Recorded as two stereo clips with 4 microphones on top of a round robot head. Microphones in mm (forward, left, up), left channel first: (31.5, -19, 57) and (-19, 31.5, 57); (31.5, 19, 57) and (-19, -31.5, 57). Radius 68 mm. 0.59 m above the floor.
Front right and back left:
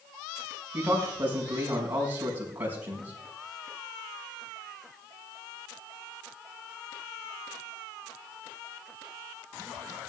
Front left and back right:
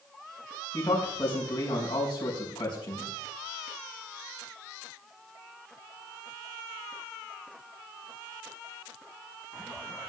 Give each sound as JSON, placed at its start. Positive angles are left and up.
{"t": 0.7, "sound": "a man speaking", "azimuth_deg": 70, "distance_m": 5.0}